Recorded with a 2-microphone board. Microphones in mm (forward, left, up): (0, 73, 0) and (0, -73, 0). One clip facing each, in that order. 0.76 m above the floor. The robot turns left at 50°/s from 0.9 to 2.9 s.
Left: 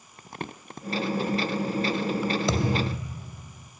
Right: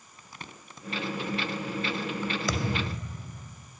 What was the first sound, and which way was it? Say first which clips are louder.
Crumpling: left 9 dB; 55° left (ahead or behind).